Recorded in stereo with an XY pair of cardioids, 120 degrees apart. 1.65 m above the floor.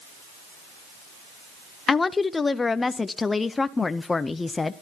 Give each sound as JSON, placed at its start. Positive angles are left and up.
{"t": 1.9, "sound": "a woman speaking", "azimuth_deg": 20, "distance_m": 0.6}